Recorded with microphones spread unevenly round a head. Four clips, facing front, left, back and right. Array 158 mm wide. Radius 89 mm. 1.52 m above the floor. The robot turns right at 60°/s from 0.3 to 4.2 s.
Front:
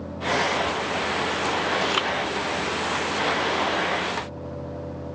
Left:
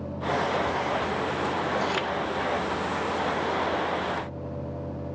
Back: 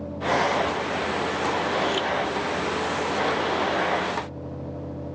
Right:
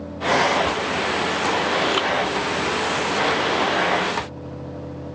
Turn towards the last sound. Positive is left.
turn(degrees=110)